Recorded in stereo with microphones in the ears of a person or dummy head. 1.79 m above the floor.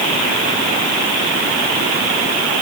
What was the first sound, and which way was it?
Only background noise.